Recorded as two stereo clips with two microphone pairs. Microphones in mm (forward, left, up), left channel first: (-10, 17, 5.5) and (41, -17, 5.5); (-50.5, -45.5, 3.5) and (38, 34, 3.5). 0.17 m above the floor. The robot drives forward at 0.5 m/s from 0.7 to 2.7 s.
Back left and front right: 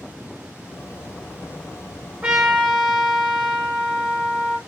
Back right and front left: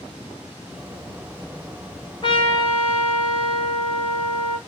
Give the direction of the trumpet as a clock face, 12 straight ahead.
3 o'clock.